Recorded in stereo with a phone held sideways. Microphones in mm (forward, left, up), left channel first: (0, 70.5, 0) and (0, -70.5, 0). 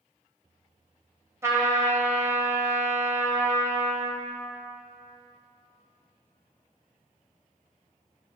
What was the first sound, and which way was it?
A trumpet, 20° right (ahead or behind).